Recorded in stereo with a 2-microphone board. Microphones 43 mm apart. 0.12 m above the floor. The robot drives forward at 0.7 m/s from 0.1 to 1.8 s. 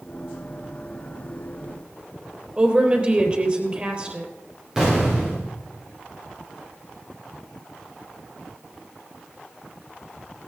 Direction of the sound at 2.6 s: 25° right (ahead or behind).